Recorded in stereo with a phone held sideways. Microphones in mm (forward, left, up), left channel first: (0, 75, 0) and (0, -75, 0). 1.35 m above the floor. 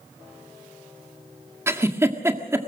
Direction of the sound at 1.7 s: 15° right (ahead or behind).